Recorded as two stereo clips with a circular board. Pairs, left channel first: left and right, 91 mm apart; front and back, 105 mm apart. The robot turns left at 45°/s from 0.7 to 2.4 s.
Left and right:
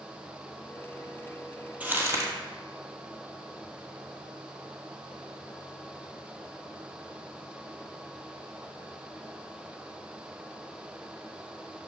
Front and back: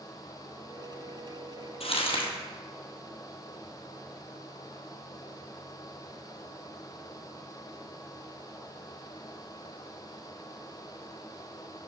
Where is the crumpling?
15° right, 1.5 m; by 2.3 s 40° right, 1.5 m.